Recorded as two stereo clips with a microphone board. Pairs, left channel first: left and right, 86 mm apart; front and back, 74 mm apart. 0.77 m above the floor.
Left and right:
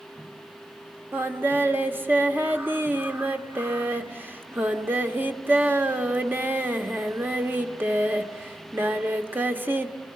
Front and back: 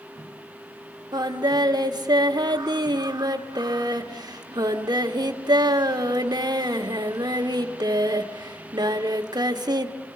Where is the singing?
155° right, 1.2 m.